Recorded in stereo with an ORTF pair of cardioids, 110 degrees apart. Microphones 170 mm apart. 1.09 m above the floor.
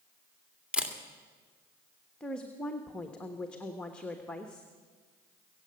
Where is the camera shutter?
5° right, 1.8 m.